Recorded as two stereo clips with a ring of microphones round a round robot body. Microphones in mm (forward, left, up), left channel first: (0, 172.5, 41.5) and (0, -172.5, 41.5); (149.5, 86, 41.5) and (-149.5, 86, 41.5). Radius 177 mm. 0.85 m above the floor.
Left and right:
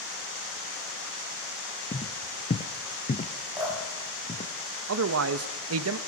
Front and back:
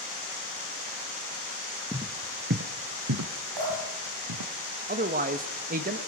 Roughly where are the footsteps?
Behind left.